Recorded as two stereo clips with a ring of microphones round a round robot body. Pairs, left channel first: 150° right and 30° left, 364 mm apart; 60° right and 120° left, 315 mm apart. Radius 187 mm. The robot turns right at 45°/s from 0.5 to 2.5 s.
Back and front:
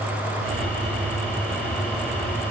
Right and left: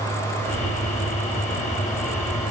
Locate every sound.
Only background noise.